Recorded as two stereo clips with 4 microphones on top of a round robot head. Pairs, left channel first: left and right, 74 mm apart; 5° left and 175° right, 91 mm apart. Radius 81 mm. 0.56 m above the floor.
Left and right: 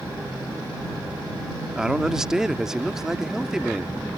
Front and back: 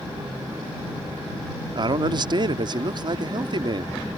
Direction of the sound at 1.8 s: 170° right.